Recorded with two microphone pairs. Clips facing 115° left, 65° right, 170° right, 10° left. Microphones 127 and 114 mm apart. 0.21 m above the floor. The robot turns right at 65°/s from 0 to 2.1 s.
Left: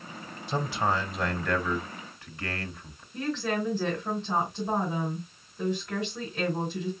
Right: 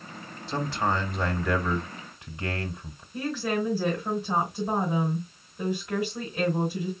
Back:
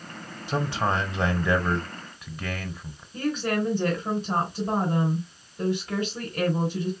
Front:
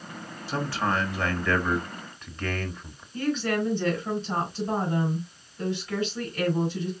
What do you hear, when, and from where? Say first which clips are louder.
0.5 s a man speaking: even, back 1 dB; 155° left, 1.1 m; by 3.0 s 100° right, 1.1 m
3.1 s a woman speaking: right 1 dB, even; 145° right, 3 m